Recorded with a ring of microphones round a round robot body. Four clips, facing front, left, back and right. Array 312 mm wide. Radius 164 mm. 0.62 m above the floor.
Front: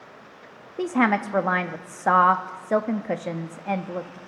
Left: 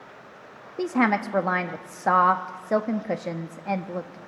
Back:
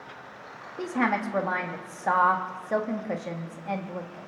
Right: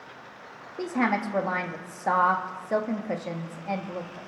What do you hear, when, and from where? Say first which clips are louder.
0.8 s a woman speaking: left 3 dB, front 5 dB; 35° left, 0.9 m